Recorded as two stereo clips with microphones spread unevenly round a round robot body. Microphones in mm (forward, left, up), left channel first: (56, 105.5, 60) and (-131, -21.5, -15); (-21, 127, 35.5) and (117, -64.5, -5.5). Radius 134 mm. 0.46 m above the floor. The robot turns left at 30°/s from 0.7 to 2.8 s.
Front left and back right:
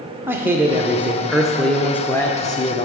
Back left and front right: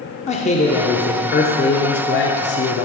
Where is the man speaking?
175° right, 0.9 m; by 2.9 s 120° left, 0.9 m.